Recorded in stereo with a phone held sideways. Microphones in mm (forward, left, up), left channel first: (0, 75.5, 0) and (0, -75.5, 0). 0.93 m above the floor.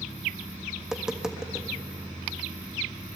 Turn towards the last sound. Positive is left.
turn(degrees=-5)  # may be behind; listen again after turning